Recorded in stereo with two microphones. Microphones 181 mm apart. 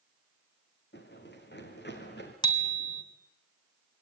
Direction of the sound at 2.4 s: 25° left (ahead or behind).